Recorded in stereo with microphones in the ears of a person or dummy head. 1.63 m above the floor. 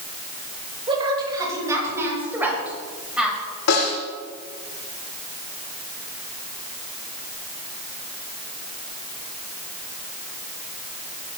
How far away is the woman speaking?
About 6.5 m.